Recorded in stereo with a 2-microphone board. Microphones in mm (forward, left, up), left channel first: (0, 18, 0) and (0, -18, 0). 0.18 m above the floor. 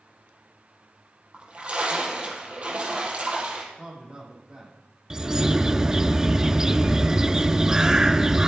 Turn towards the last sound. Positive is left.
turn(degrees=-15)  # may be behind; listen again after turning